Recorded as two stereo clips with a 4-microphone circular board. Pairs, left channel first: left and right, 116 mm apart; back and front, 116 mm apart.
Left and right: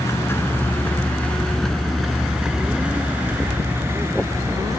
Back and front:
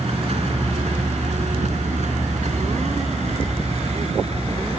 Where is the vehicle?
25° left; by 4.8 s 30° right.